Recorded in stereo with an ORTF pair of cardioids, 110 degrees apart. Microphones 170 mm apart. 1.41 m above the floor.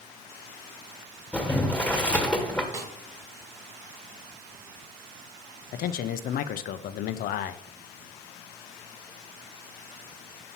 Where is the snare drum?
15° right, 1.2 m.